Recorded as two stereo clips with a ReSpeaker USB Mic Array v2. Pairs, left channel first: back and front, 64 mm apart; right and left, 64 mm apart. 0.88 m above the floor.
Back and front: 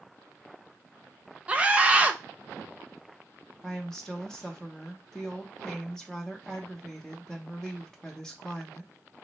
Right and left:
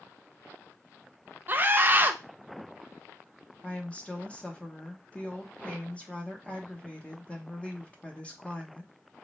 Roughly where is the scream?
Ahead left.